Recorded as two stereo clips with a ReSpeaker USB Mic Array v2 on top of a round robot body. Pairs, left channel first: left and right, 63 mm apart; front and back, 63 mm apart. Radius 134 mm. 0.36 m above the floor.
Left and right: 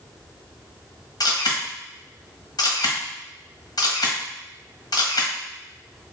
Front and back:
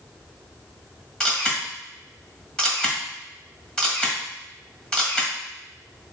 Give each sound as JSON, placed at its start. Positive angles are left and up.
{"t": 1.2, "sound": "a camera shutter", "azimuth_deg": 75, "distance_m": 1.4}